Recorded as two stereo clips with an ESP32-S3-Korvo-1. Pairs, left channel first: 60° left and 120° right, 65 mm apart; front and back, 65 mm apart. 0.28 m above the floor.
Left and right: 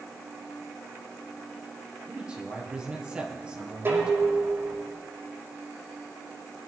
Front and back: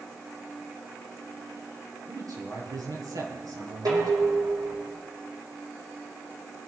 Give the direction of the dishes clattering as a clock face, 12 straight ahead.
6 o'clock.